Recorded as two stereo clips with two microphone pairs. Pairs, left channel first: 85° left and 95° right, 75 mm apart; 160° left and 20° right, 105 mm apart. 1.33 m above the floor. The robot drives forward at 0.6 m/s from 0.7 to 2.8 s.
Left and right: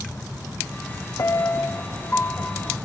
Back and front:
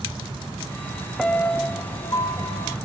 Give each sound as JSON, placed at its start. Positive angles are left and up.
{"t": 1.2, "sound": "a piano", "azimuth_deg": 70, "distance_m": 0.6}